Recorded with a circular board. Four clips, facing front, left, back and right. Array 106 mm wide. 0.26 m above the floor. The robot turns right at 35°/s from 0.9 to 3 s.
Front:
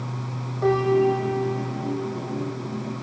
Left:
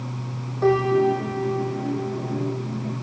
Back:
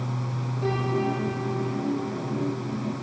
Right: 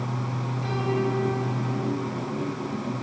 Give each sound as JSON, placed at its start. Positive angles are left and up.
{"t": 0.6, "sound": "a piano", "azimuth_deg": 70, "distance_m": 5.0}